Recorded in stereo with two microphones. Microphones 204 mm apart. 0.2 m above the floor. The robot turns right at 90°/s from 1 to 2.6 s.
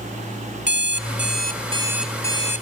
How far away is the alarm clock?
About 0.8 m.